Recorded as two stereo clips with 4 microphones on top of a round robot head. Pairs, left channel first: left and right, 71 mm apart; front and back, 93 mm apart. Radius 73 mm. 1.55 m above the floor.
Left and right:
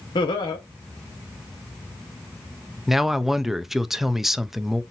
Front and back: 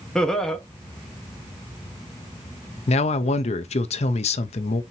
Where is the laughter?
85° left, 1.0 m.